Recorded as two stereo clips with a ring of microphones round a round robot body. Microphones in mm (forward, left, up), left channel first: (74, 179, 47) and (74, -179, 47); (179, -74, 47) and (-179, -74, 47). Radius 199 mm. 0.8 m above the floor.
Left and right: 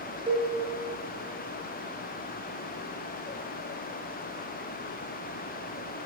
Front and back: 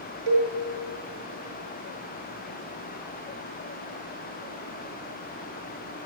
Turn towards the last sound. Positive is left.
turn(degrees=-170)